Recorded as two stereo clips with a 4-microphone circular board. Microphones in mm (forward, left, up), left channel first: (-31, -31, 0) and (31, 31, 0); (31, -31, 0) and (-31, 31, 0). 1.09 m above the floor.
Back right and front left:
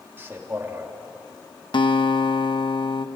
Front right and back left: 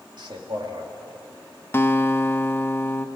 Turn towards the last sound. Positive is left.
turn(degrees=-110)